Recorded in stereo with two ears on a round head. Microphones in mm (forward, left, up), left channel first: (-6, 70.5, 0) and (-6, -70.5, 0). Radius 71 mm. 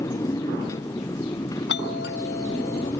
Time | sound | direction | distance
0.0 | a motorcycle | 20° left (ahead or behind) | ?
1.7 | a doorbell | 75° left (ahead or behind) | ?